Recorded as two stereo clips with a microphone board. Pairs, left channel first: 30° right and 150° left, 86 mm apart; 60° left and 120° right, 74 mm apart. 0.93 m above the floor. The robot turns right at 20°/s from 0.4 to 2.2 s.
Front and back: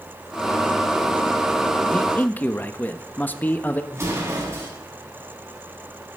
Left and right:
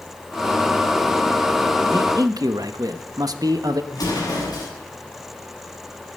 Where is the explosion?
95° left, 8 m.